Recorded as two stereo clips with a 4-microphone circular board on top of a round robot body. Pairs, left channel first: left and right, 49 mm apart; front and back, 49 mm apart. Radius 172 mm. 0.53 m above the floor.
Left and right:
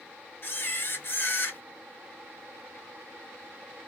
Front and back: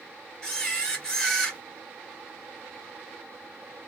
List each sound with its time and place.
0.4 s a camera shutter: 70° left, 1.9 m